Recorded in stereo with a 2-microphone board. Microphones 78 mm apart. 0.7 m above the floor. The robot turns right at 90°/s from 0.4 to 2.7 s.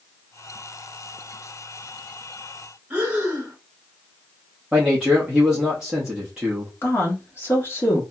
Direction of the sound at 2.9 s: 15° right (ahead or behind).